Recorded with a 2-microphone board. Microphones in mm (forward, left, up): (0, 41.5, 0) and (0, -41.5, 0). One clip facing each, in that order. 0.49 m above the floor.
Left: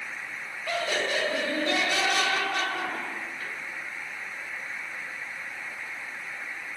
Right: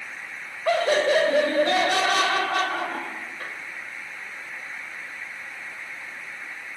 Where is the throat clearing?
I don't hear throat clearing.